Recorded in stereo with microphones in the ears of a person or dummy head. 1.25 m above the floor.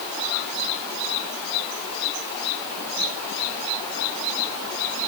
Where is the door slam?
I don't hear a door slam.